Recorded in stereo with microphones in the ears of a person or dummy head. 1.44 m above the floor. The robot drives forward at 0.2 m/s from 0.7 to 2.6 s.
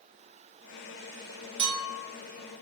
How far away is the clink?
About 1.0 m.